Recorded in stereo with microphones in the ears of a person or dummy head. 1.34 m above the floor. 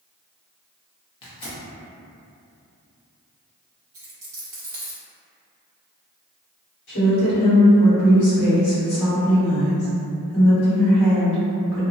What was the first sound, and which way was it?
Tearing paper, 25° left (ahead or behind).